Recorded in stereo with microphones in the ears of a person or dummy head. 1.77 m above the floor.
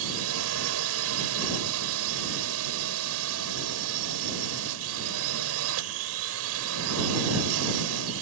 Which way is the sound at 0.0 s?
85° right.